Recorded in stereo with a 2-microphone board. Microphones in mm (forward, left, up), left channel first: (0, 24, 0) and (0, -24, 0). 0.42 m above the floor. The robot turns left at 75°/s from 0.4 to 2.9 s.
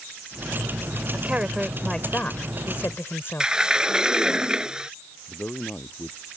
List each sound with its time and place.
1.1 s a woman speaking: 125° right; by 4.4 s 100° left
3.4 s a sliding door: 10° right (ahead or behind)
5.3 s a man speaking: 35° left (ahead or behind)